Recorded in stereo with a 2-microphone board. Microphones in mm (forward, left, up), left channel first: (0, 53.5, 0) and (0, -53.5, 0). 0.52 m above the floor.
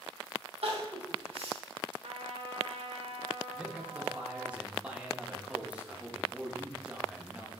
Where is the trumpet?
70° right (ahead or behind), 0.8 m.